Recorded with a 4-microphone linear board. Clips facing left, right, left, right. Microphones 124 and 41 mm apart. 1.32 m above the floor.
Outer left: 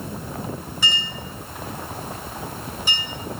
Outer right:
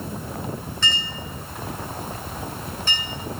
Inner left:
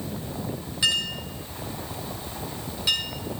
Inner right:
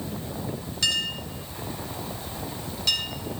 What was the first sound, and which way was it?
A clink, 10° left (ahead or behind).